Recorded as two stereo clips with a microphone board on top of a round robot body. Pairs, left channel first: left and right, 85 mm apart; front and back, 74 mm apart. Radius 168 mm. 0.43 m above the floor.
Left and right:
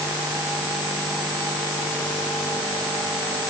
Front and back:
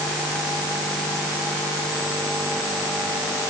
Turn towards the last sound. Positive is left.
No sound to turn to.